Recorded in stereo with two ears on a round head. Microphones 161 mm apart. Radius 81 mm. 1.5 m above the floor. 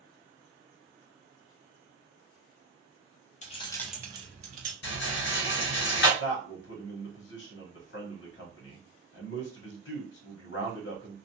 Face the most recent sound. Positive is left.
turn(degrees=70)  # may be behind; listen again after turning